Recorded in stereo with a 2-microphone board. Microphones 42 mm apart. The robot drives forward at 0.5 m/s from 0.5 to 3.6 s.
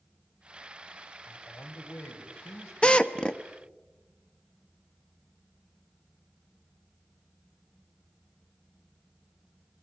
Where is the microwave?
I don't hear a microwave.